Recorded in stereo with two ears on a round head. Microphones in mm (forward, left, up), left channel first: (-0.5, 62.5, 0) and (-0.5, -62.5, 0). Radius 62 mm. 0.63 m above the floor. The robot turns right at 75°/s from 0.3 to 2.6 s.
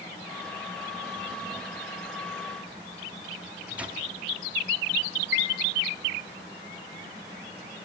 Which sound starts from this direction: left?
A chime, at 5.3 s.